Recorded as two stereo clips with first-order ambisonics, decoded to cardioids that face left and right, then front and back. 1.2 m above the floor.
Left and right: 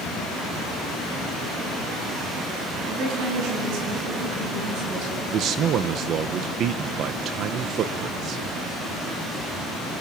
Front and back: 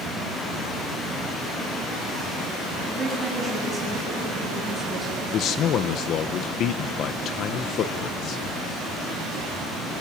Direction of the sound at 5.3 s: 45° right.